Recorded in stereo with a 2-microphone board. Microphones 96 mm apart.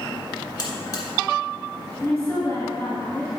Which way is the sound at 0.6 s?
50° left (ahead or behind).